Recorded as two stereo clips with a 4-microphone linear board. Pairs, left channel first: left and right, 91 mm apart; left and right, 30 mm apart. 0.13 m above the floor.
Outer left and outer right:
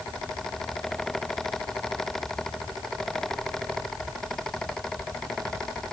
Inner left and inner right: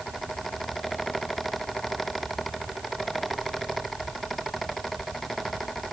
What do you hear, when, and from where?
Only background noise.